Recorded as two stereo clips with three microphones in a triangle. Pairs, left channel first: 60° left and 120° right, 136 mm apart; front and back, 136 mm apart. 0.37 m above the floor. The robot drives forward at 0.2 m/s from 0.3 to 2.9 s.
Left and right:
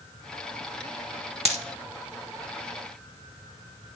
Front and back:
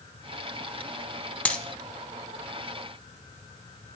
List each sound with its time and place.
1.4 s a dropped coin: 80° right, 0.5 m; by 1.6 s 85° right, 0.5 m